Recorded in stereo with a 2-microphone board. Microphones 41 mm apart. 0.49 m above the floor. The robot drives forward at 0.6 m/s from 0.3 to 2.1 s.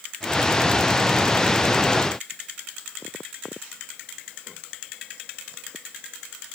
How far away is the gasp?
I don't hear a gasp.